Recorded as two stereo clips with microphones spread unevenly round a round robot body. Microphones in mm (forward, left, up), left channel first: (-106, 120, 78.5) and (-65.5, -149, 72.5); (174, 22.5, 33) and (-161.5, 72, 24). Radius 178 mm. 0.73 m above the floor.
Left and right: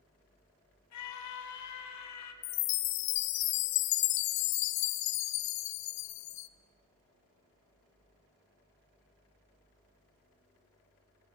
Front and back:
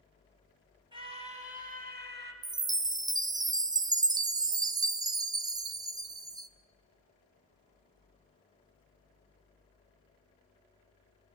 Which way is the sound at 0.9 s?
95° left.